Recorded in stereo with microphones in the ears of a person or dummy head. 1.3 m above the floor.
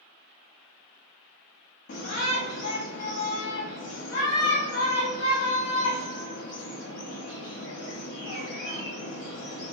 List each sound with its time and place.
1.9 s a shout: 55° left (ahead or behind), 0.7 m